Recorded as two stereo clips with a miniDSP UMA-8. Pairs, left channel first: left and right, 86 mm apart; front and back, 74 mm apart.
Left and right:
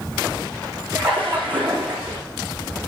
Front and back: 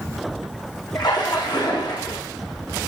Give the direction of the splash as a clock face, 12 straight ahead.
1 o'clock.